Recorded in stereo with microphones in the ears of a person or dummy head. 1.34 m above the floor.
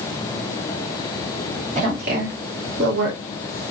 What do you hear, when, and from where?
1.8 s a woman speaking: 35° right (ahead or behind), 1.2 m; by 3.2 s 60° right (ahead or behind), 1.0 m